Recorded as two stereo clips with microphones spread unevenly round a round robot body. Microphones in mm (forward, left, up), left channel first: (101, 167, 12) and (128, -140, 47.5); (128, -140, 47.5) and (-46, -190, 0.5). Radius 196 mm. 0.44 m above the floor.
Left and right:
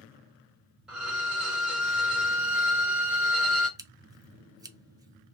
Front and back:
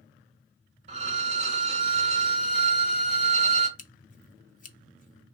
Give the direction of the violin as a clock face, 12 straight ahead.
6 o'clock.